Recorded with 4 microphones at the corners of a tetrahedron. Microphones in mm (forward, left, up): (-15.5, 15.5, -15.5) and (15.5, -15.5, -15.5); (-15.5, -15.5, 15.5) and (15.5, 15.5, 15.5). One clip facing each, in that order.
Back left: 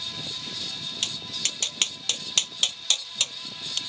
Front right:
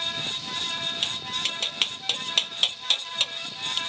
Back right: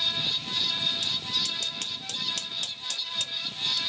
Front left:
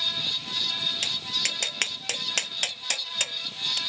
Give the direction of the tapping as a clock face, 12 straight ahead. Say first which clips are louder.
Front right 3 dB, front left 1 dB; 11 o'clock.